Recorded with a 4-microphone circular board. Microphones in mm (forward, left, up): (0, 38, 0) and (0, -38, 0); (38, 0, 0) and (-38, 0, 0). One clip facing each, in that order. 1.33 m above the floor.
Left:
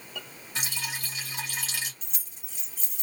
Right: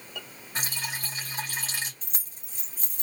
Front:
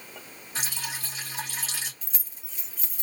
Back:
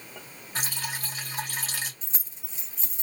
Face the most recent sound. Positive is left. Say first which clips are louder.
# right 2 dB, back 2 dB
turn(degrees=-120)